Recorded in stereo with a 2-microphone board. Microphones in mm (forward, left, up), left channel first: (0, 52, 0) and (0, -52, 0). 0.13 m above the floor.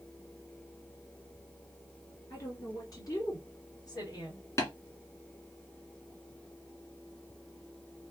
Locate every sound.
2.3 s a woman speaking: 35° left (ahead or behind), 2 m; by 4.5 s 45° left (ahead or behind), 2.5 m
4.6 s tapping: 30° left (ahead or behind), 1.7 m